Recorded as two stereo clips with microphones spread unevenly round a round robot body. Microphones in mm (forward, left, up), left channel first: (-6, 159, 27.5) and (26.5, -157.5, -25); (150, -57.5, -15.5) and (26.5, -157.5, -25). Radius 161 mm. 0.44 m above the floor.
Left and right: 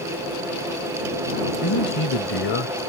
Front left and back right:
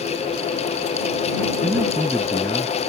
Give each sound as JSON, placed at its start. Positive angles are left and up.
{"t": 1.6, "sound": "a man speaking", "azimuth_deg": 135}